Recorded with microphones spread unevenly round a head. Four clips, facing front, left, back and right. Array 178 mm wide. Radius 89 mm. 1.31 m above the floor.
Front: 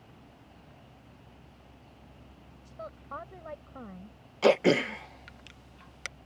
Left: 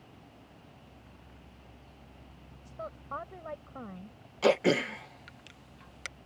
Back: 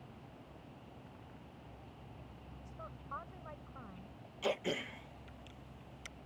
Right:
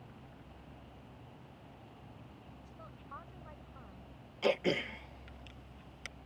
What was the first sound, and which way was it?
A woman speaking, 55° left.